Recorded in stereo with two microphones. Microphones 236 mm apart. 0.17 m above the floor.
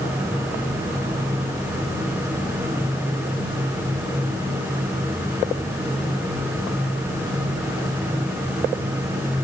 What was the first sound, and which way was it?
Only background noise.